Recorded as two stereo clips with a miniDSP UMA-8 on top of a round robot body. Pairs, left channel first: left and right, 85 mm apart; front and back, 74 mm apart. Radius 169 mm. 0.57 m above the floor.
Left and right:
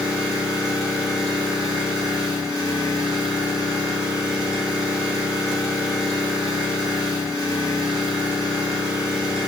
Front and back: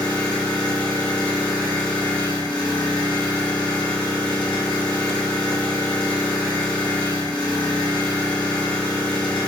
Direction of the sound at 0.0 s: 5° right.